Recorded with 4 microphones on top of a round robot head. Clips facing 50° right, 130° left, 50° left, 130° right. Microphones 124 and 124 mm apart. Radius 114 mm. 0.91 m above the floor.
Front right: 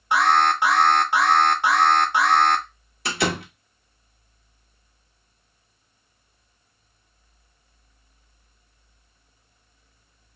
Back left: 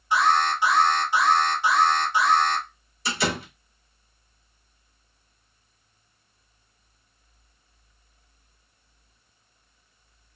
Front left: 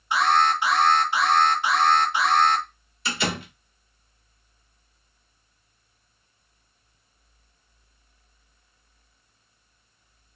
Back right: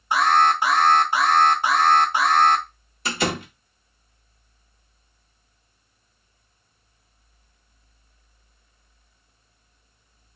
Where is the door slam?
85° right, 1.7 m.